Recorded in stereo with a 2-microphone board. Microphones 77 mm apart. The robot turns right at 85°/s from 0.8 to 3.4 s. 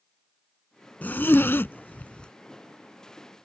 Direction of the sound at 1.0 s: 20° left (ahead or behind).